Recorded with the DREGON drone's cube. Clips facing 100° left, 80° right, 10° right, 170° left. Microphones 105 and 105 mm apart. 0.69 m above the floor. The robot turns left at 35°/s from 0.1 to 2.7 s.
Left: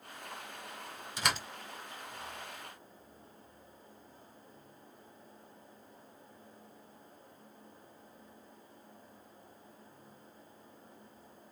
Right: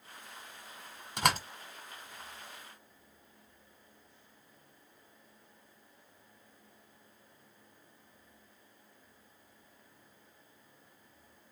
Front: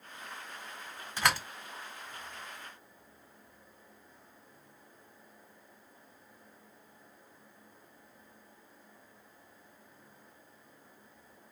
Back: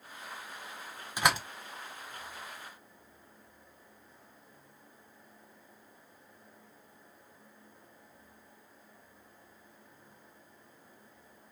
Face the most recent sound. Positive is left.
turn(degrees=-165)